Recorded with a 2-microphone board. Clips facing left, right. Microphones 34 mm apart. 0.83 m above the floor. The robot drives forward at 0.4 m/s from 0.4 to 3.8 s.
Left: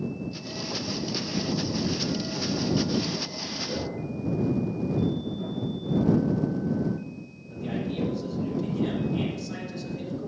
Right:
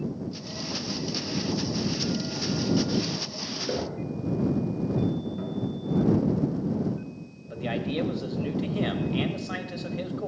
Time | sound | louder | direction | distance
3.7 | knocking | right 3 dB | 50° right (ahead or behind) | 2.5 m
5.4 | a guitar | even | 25° right (ahead or behind) | 3 m
7.5 | a man speaking | right 2 dB | 40° right (ahead or behind) | 0.9 m